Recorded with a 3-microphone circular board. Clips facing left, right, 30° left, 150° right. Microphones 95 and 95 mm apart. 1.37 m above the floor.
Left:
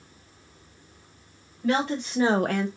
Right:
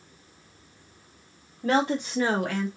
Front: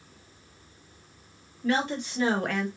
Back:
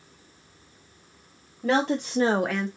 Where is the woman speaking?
150° right, 1.0 m; by 2.7 s 110° left, 0.7 m.